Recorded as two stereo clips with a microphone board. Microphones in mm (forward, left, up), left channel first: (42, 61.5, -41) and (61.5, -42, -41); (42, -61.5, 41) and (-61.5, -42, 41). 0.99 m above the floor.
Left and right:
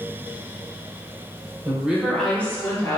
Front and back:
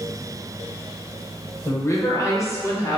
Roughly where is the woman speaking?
Ahead right.